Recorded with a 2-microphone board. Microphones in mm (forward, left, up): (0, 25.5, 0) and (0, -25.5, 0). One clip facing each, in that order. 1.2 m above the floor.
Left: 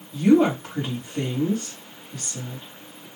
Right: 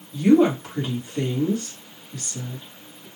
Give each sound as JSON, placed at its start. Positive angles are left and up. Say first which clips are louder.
{"t": 0.1, "sound": "a woman speaking", "louder": "right 1 dB", "side_deg": 15, "distance_m": 1.3}